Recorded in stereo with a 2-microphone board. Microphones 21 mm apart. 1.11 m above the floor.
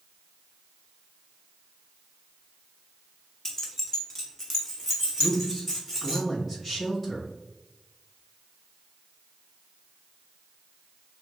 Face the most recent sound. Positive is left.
turn(degrees=5)  # may be behind; listen again after turning